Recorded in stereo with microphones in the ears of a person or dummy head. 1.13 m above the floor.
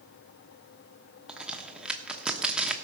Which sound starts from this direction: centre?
A crack, at 1.3 s.